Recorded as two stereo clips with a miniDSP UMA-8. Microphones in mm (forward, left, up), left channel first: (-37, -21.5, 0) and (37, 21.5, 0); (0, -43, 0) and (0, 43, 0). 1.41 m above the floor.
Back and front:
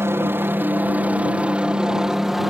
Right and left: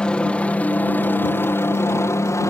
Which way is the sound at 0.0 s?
15° right.